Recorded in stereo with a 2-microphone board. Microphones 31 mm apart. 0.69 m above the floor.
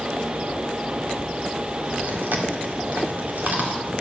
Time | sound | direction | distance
2.0 | chewing | 65° right (ahead or behind) | 2.0 m